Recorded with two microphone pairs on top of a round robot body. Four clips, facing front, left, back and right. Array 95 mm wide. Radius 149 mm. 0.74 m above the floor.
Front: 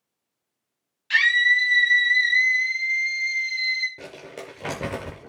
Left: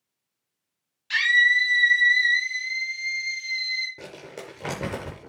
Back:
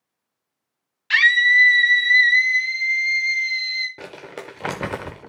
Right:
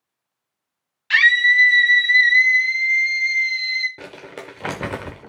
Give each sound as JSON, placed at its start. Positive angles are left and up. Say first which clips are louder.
{"t": 1.1, "sound": "a scream", "louder": "right 5 dB, back 4 dB", "azimuth_deg": -130, "distance_m": 0.8}
{"t": 4.0, "sound": "crumpling", "louder": "right 3 dB, back 3 dB", "azimuth_deg": -145, "distance_m": 0.5}